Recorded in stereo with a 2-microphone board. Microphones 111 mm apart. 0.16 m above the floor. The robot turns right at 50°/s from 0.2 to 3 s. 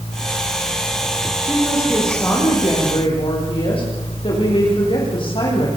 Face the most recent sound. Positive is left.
turn(degrees=55)